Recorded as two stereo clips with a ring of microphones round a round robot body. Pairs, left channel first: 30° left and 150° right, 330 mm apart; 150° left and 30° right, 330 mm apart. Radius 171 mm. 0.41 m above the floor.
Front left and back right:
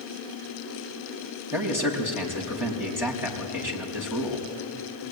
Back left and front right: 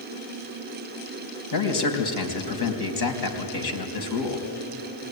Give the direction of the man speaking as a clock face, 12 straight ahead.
8 o'clock.